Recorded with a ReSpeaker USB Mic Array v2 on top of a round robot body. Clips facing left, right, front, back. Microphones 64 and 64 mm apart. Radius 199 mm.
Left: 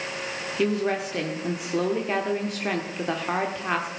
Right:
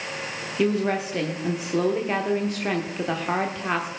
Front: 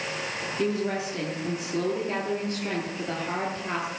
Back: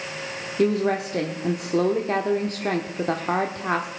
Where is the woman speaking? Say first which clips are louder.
Right 2 dB, back 7 dB; straight behind, 1.3 m.